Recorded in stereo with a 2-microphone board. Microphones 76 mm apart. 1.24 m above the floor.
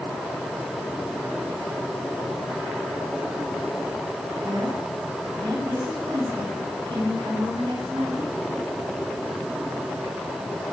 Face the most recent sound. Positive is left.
turn(degrees=-90)